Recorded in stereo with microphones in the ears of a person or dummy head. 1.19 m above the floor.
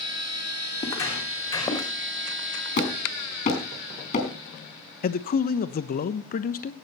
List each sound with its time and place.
0.8 s footsteps: 20° left (ahead or behind), 3 m; by 1.9 s 15° left (ahead or behind), 4 m
2.8 s hammering: 40° left (ahead or behind), 4 m
5.0 s a man speaking: 45° left (ahead or behind), 0.9 m